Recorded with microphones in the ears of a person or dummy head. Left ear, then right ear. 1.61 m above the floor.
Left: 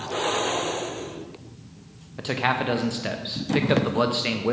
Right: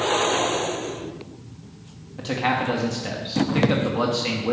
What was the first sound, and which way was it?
A man speaking, 25° left (ahead or behind).